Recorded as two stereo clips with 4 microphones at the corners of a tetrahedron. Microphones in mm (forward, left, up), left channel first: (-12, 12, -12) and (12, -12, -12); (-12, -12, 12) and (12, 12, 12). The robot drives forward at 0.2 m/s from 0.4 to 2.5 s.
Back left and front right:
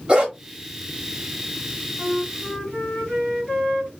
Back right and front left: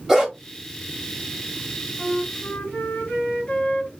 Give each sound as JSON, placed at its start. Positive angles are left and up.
{"t": 0.1, "sound": "a dog barking", "azimuth_deg": -30, "distance_m": 1.1}
{"t": 2.0, "sound": "a flute", "azimuth_deg": -155, "distance_m": 1.5}